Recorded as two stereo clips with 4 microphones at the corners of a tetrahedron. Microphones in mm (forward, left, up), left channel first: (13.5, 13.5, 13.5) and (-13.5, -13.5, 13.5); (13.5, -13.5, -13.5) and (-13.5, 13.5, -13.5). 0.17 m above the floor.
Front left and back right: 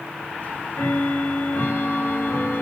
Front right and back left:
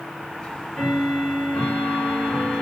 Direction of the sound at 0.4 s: 25° left.